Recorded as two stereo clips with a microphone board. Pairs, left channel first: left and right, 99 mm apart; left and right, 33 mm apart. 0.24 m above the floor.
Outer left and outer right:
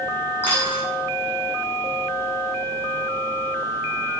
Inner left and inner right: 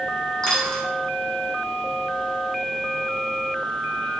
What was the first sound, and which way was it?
A dropped coin, 20° left (ahead or behind).